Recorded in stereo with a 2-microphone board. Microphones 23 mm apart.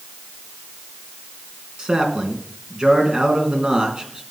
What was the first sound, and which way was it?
A man speaking, 35° right (ahead or behind).